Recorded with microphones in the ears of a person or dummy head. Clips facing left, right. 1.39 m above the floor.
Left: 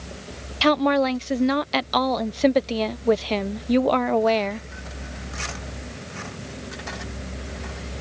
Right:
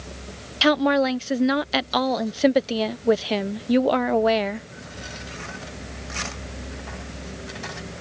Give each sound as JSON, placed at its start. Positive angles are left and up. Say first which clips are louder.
{"t": 0.6, "sound": "a woman speaking", "louder": "even", "side_deg": 0}